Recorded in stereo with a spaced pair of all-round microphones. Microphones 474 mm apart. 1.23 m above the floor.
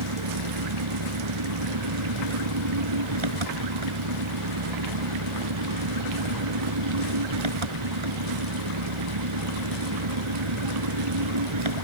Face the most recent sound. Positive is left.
turn(degrees=-85)